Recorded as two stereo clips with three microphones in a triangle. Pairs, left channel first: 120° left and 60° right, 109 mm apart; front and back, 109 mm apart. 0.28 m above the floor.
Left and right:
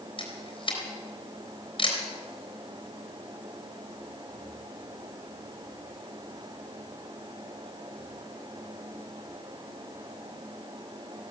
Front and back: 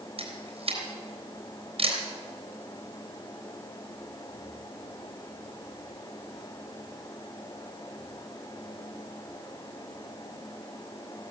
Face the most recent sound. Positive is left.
turn(degrees=160)